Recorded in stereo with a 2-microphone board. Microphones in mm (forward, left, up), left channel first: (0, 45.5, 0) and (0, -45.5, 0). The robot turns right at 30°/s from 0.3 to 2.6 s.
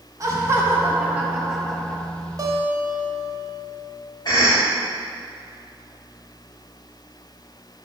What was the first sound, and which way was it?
Laughter, 45° right.